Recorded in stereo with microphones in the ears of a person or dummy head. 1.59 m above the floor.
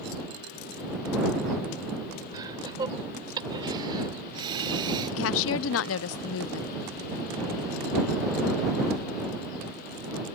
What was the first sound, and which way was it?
Laughter, 20° right (ahead or behind).